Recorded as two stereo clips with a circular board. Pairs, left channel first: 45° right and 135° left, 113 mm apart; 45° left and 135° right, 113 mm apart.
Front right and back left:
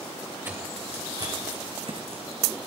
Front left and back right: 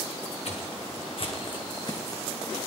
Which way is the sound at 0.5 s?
65° left.